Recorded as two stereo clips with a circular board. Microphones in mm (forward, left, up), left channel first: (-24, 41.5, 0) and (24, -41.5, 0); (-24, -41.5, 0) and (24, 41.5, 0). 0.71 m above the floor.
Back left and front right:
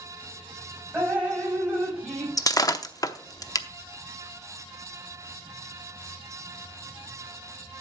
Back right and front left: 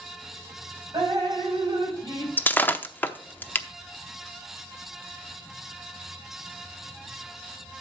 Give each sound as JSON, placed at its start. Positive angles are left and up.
{"t": 0.9, "sound": "dripping", "azimuth_deg": 15, "distance_m": 5.0}
{"t": 2.4, "sound": "breaking glass", "azimuth_deg": 170, "distance_m": 0.7}